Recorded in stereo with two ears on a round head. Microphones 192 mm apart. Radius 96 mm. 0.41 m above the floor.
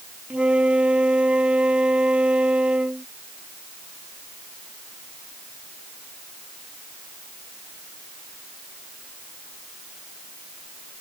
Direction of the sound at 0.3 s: 5° right (ahead or behind).